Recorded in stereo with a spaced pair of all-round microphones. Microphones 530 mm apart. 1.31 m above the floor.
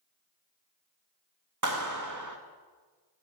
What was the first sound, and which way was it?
A clap, 35° right (ahead or behind).